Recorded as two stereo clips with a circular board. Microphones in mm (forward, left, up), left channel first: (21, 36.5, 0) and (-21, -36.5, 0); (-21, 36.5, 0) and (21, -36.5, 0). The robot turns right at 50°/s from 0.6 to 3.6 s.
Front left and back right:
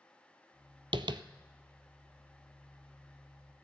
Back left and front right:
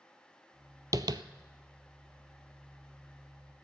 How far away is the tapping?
About 0.5 m.